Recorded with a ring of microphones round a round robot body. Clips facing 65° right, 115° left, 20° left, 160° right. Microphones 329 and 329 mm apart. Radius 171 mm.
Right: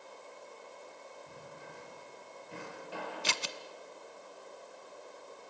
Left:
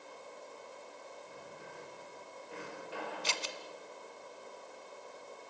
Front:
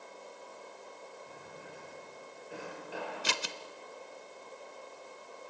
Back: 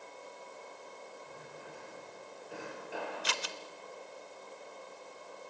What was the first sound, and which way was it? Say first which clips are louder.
A drawer: even, even; 65° right.